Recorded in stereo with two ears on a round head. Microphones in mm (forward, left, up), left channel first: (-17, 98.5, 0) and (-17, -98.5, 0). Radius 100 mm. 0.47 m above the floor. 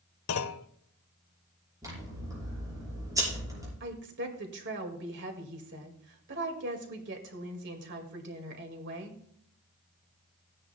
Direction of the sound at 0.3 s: 75° left (ahead or behind).